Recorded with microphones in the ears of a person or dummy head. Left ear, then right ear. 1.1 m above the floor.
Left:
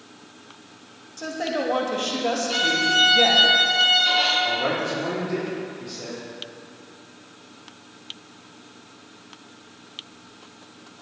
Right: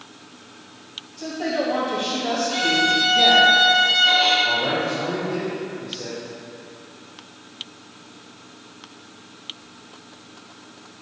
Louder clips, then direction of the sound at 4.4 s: Right 2 dB; 65° left (ahead or behind).